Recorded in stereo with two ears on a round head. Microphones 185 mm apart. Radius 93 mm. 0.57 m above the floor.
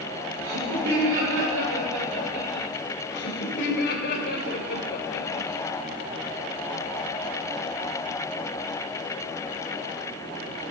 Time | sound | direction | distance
0.4 | laughter | 70° right (ahead or behind) | 8 m
3.1 | laughter | 55° left (ahead or behind) | 3 m